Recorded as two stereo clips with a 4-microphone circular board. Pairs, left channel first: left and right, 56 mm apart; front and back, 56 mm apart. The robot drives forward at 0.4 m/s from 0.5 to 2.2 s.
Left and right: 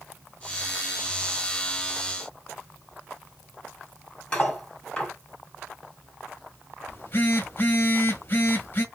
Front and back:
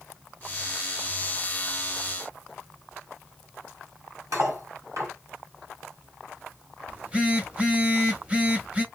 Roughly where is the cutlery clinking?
Behind.